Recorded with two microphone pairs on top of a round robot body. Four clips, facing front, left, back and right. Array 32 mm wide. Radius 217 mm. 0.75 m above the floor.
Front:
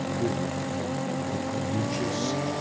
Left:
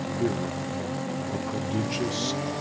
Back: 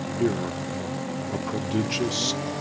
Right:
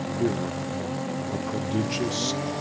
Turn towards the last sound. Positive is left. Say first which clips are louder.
# right 2 dB, back 6 dB
turn(degrees=180)